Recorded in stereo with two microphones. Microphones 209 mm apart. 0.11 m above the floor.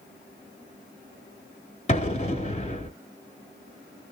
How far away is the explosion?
About 0.7 m.